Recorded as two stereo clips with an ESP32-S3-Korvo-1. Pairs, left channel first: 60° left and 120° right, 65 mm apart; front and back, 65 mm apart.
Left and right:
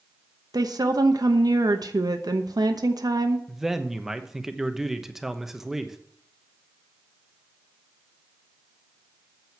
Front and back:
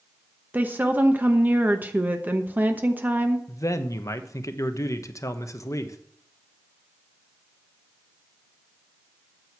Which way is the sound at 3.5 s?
35° right.